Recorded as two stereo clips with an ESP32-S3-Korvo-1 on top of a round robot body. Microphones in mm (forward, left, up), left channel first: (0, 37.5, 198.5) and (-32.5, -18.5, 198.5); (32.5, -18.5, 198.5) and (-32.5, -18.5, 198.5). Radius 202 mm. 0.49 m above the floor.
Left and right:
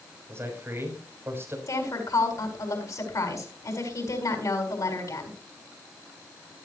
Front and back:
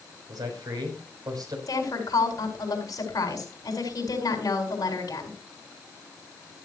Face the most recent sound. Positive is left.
turn(degrees=30)